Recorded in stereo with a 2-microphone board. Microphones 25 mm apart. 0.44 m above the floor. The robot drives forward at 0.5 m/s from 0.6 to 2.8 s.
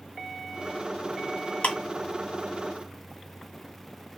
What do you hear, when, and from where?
1.6 s ticking: 60° left (ahead or behind), 0.9 m; by 1.7 s 55° left (ahead or behind), 0.9 m